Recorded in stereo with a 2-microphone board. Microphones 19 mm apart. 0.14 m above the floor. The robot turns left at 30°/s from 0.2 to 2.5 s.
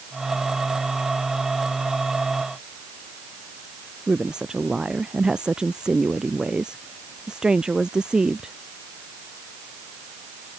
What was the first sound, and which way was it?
A woman speaking, 50° right (ahead or behind).